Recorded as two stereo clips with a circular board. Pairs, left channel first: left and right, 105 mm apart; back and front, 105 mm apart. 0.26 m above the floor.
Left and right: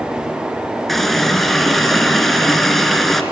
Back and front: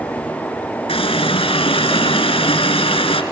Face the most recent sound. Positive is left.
turn(degrees=180)